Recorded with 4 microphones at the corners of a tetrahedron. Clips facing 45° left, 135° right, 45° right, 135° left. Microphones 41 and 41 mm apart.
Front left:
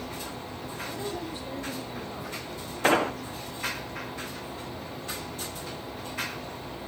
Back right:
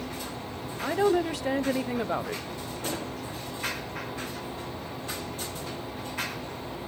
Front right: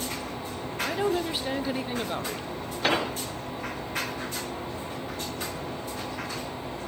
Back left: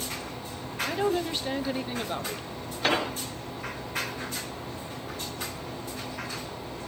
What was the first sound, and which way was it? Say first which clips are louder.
A woman speaking: back right 12 dB, even; 130° right.